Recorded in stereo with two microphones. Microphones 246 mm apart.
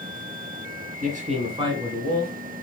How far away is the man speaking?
About 1.6 m.